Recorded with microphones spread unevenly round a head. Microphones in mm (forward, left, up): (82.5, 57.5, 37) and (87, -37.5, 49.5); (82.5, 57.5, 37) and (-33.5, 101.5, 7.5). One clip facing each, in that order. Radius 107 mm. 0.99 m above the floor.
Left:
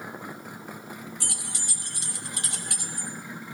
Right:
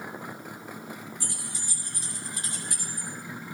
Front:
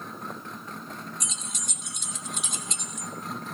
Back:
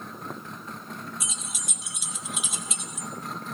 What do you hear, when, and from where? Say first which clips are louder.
1.2 s keys jangling: left 1 dB, even; 75° left, 1.1 m